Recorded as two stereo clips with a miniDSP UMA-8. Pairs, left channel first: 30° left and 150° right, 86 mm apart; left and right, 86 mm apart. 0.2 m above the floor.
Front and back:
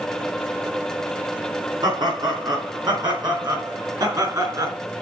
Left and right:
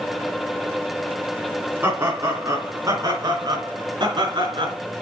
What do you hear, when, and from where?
1.8 s laughter: 150° right, 2.5 m; by 4.8 s 105° right, 3.5 m